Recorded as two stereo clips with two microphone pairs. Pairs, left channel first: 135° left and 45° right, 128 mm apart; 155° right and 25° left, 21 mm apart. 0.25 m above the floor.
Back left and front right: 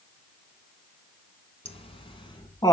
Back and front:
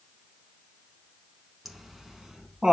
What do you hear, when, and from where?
1.6 s laughter: 100° left, 2 m; by 2.7 s 80° left, 1.9 m